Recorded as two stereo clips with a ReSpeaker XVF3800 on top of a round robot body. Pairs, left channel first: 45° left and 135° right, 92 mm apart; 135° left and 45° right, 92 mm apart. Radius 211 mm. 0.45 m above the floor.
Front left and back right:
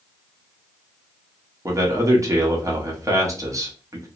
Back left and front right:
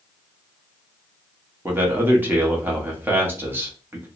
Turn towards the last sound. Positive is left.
turn(degrees=-105)